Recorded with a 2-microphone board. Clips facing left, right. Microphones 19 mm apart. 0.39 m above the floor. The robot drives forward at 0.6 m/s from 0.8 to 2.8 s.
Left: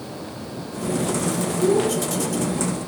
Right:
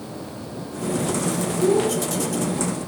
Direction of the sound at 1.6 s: 55° right (ahead or behind).